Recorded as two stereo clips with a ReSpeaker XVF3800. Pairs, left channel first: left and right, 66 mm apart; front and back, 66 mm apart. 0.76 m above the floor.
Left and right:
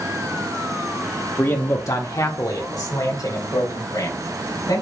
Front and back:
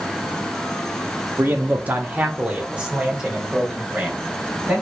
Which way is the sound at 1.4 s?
135° left.